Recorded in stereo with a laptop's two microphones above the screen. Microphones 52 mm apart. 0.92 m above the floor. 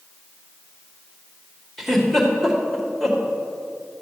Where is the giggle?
5° left (ahead or behind), 2 m.